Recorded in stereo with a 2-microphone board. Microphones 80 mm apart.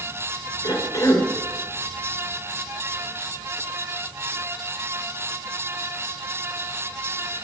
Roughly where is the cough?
Left.